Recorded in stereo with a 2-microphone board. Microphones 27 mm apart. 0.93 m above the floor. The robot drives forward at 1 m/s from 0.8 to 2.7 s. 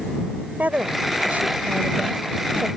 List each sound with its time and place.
0.6 s a woman speaking: 80° right; by 2.7 s 65° right (ahead or behind)